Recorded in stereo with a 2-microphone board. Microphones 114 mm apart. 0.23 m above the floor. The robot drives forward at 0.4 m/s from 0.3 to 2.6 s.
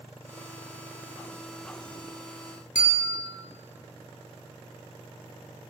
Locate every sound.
2.8 s a bell: 85° left, 0.6 m